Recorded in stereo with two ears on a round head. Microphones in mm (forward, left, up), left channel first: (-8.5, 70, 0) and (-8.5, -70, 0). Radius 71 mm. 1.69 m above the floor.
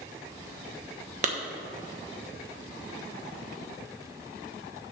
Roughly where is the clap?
Right.